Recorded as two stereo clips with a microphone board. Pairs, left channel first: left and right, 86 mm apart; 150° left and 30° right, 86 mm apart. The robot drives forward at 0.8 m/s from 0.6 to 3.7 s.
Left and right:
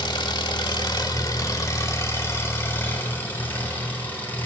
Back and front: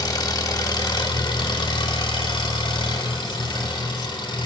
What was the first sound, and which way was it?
An engine running, 110° left.